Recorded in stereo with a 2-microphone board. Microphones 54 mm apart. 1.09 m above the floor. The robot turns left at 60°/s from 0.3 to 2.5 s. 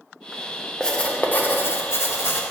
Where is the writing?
165° left, 0.9 m; by 2.4 s 65° left, 0.9 m.